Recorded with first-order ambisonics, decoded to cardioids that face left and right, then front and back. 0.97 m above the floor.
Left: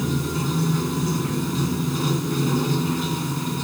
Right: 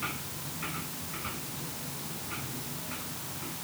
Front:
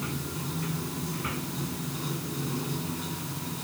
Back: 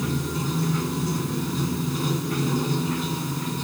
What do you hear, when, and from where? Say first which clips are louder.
0.0 s running water: left 10 dB, back 7 dB; 115° left